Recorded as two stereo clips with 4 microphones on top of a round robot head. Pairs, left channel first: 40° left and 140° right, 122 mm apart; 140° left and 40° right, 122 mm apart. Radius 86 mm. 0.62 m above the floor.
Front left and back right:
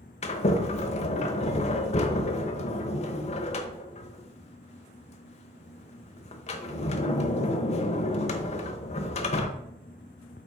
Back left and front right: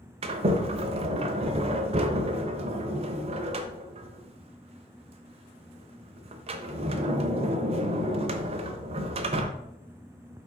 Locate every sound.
0.2 s a sliding door: 5° left, 0.9 m